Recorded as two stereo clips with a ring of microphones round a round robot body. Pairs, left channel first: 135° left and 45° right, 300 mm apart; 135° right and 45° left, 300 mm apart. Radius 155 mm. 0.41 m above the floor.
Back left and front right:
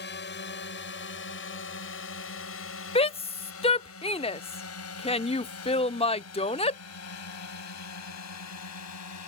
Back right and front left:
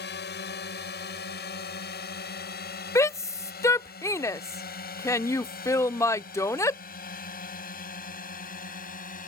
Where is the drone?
Straight behind; by 9.3 s 165° left.